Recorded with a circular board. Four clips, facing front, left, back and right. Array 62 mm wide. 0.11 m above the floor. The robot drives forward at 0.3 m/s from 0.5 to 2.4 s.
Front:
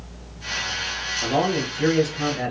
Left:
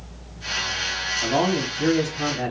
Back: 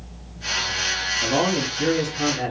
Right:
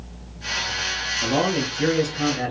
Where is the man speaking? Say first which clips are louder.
Even, front 1 dB; 70° right, 1.7 m; by 2.5 s 90° right, 1.7 m.